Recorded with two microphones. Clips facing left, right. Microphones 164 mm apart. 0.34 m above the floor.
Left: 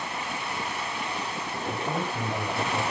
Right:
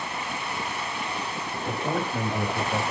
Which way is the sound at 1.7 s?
70° right (ahead or behind).